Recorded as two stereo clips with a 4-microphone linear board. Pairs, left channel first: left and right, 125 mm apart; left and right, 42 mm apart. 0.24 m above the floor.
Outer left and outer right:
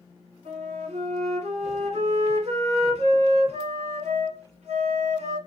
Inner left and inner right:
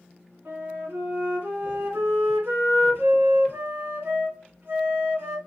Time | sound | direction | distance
0.5 | a flute | 65° right (ahead or behind) | 1.5 m